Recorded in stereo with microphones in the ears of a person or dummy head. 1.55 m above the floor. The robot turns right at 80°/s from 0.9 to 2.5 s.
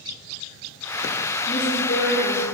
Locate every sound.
1.5 s a woman speaking: 30° left, 3.5 m; by 2.4 s 110° left, 3.5 m